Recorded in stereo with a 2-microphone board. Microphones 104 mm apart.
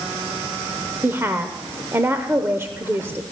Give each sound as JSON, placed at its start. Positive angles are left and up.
{"t": 1.0, "sound": "a woman speaking", "side_deg": -25, "distance_m": 0.9}